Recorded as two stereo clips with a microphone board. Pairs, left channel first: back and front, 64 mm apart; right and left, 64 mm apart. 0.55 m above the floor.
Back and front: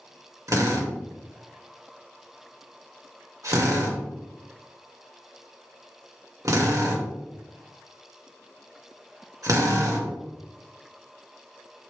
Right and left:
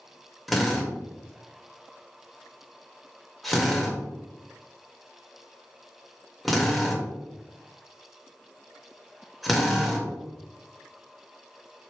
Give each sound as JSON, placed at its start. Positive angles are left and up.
{"t": 0.5, "sound": "a drill", "azimuth_deg": 0, "distance_m": 1.7}